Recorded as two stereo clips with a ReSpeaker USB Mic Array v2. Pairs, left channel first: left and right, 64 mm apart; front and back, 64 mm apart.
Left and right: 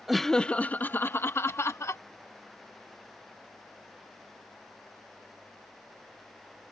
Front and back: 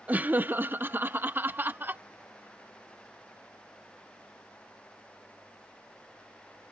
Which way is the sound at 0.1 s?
175° right.